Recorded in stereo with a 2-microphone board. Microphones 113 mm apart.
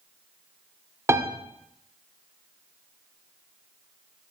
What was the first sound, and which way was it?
A piano, 25° right (ahead or behind).